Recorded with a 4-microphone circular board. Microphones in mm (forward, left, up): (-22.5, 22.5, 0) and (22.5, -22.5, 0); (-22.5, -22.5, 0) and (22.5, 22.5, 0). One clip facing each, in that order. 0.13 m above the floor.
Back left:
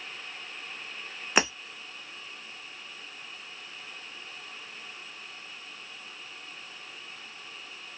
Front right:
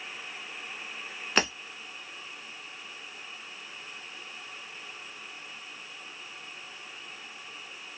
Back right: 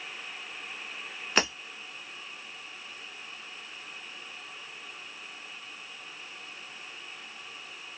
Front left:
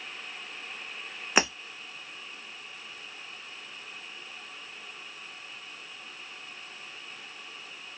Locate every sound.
1.4 s breaking glass: 90° left, 0.7 m